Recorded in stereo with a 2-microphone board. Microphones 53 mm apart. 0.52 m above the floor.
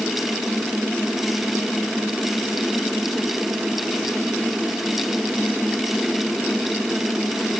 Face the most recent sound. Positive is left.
No sound to turn to.